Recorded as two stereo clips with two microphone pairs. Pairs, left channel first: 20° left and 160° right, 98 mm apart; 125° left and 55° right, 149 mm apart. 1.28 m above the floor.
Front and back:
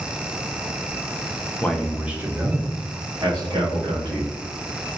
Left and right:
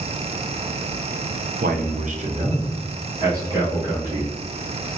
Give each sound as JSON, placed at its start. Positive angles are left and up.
{"t": 1.6, "sound": "a man speaking", "azimuth_deg": -55, "distance_m": 0.6}